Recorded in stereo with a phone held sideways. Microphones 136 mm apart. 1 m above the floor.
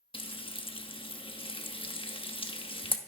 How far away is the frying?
About 0.8 m.